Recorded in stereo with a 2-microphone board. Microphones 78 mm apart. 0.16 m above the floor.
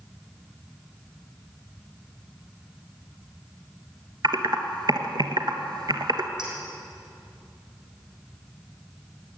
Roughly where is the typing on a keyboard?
Right.